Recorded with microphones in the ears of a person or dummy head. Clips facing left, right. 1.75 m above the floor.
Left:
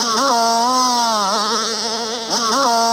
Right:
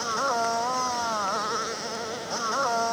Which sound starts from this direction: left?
A motorcycle, at 0.0 s.